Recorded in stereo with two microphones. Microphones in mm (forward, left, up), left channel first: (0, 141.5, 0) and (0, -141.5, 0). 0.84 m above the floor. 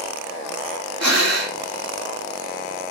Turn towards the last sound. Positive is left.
turn(degrees=-65)  # may be behind; listen again after turning